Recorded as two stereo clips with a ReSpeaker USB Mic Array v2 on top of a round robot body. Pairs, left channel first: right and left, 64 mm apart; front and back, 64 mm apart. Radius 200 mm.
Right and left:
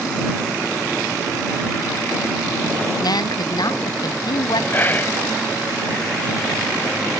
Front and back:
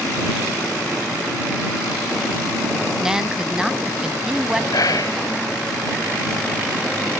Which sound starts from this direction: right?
A woman speaking, at 3.0 s.